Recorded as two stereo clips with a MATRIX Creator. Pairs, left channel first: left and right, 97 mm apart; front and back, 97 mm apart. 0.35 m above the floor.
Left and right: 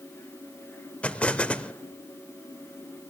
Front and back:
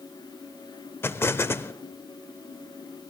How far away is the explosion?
About 0.5 m.